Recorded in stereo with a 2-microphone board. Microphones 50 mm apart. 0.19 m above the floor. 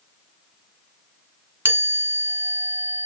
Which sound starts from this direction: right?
A chime, at 1.6 s.